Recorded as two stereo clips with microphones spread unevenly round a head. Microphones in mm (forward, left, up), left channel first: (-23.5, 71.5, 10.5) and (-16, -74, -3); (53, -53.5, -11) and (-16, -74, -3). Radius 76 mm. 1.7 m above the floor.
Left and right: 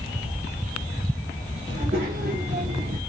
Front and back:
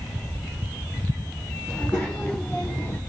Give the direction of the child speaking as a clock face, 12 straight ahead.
2 o'clock.